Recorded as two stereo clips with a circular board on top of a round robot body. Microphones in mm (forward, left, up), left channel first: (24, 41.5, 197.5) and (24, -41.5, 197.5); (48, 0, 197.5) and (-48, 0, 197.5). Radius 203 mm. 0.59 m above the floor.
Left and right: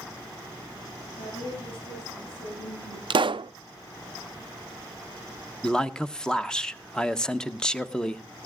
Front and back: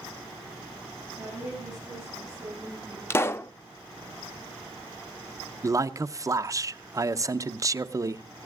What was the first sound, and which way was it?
A woman speaking, 95° left.